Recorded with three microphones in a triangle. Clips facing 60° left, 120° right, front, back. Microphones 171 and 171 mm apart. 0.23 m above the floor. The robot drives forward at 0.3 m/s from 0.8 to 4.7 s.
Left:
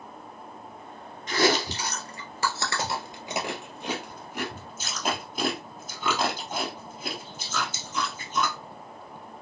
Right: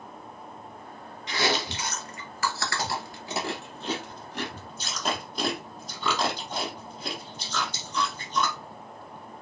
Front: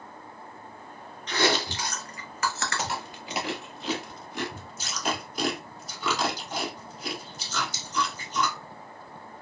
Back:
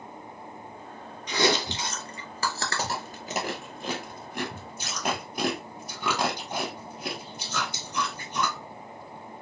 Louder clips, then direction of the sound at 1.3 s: Left 4 dB, back 1 dB; 100° left.